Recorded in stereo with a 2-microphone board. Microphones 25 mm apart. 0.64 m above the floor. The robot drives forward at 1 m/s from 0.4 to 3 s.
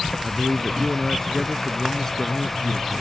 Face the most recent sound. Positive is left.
turn(degrees=25)  # may be behind; listen again after turning